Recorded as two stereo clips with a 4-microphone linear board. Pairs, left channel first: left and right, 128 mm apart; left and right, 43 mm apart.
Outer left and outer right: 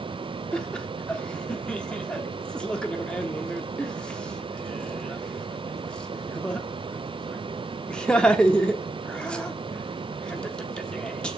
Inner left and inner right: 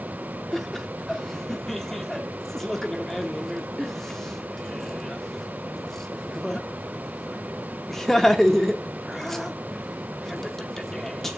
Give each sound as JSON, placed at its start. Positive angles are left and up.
{"t": 0.5, "sound": "laughter", "side_deg": 10, "distance_m": 0.8}